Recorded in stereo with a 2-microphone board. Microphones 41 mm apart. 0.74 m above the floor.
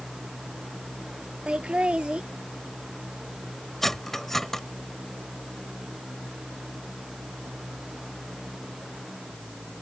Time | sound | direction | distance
1.5 | laughter | 30° right (ahead or behind) | ?
3.8 | cutlery clinking | 5° left (ahead or behind) | ?